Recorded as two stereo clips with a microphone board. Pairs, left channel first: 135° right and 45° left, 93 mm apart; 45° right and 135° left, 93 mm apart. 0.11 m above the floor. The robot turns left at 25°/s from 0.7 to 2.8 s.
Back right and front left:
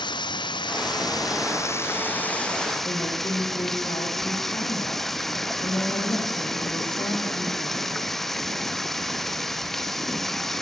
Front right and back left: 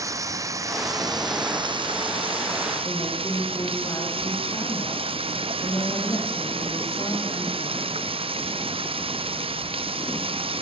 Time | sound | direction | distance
0.0 | running water | 170° right | 0.9 m
2.8 | a woman speaking | 95° right | 8 m